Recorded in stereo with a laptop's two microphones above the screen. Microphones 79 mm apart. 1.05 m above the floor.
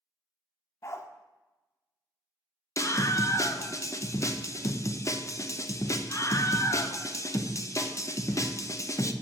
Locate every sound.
0.8 s a dog barking: 40° left (ahead or behind), 0.9 m
2.8 s a scream: 40° left (ahead or behind), 0.7 m